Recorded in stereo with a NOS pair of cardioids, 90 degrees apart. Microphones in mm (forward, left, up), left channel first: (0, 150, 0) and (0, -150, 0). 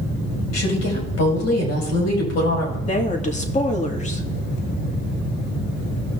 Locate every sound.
0.5 s a woman speaking: 65° left, 4.5 m
2.9 s a woman speaking: 25° left, 2.5 m